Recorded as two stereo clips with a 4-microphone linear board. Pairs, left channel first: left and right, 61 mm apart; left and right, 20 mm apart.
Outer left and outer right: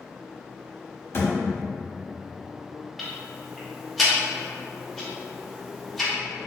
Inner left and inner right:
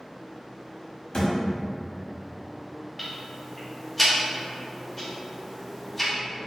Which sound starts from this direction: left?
A thud, at 1.1 s.